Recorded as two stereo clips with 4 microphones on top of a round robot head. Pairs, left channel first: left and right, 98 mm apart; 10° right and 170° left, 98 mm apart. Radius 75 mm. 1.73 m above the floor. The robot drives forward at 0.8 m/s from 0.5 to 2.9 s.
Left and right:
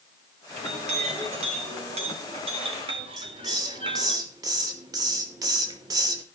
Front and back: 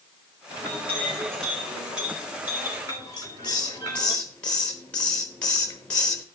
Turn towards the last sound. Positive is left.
turn(degrees=-85)